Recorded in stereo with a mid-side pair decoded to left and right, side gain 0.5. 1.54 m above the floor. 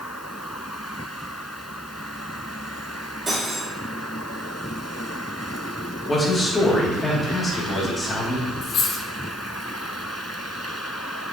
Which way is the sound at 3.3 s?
30° right.